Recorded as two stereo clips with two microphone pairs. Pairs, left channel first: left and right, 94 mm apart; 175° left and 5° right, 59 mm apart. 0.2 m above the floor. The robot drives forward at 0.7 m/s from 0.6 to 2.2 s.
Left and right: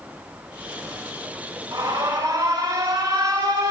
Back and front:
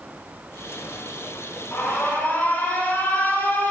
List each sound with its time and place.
1.7 s an alarm: 120° right, 8.5 m; by 3.7 s 125° right, 8.5 m